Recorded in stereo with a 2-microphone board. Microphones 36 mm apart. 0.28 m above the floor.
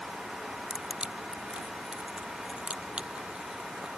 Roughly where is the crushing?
Right.